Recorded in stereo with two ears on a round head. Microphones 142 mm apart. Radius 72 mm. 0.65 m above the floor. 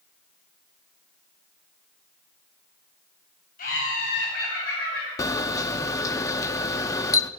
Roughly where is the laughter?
Left.